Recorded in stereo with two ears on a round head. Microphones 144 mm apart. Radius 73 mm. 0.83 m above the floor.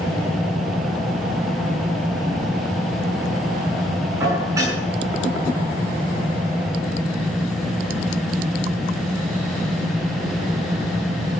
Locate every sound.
4.2 s dishes clattering: 20° right (ahead or behind), 7 m